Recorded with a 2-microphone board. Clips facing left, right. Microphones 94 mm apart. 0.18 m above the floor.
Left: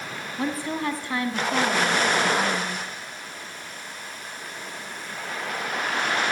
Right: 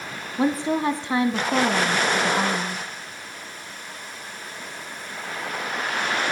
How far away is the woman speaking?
About 1.2 m.